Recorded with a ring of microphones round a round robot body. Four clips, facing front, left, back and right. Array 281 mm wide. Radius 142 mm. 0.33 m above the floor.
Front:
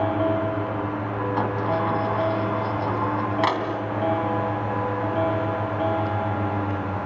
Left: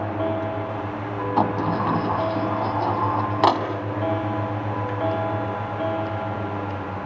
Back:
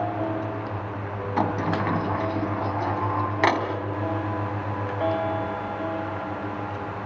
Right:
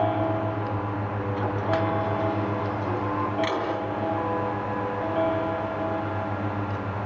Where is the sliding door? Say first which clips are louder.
Left 4 dB, back 1 dB; 115° left, 2.5 m.